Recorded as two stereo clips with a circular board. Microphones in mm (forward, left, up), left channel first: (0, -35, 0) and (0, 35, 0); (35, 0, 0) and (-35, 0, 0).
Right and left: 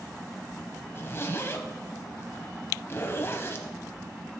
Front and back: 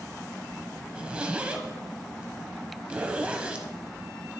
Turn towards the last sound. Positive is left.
turn(degrees=-115)